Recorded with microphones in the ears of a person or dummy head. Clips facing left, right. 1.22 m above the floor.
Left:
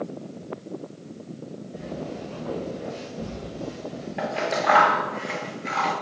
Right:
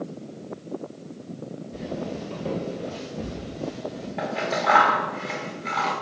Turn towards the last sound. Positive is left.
turn(degrees=10)  # may be behind; listen again after turning